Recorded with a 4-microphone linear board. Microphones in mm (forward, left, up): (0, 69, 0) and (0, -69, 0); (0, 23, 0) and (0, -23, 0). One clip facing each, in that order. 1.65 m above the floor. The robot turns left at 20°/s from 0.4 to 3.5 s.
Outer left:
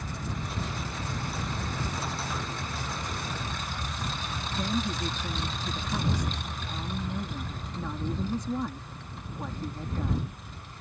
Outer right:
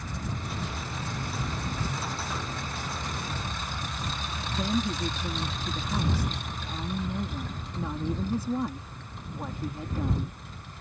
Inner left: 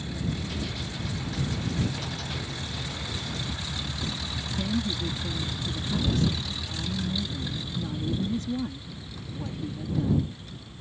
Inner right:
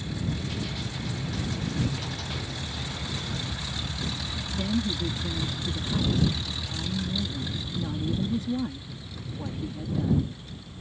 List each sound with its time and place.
4.5 s a woman speaking: 10° right (ahead or behind)